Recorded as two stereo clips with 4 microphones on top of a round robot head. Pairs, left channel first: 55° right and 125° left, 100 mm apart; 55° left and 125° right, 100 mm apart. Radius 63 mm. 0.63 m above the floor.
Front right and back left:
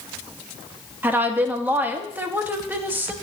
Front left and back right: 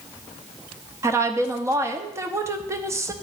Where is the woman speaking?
170° right, 0.9 m.